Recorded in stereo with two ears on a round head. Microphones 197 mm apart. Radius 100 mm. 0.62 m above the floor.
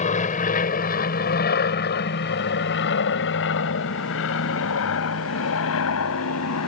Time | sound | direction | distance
0.0 | an aircraft | 35° left (ahead or behind) | ?